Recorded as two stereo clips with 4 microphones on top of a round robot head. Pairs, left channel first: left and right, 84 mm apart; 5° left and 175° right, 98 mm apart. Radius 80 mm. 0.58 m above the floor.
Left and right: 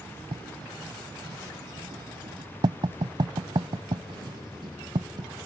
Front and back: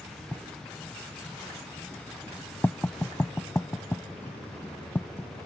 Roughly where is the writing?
Right.